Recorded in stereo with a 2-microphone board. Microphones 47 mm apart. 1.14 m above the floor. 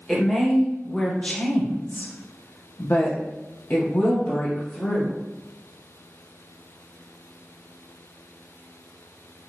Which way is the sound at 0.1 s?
5° left (ahead or behind).